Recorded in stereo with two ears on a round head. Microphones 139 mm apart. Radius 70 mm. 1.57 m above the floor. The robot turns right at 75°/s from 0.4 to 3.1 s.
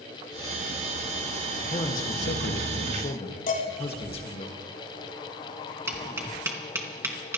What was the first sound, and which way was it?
A man speaking, 35° left.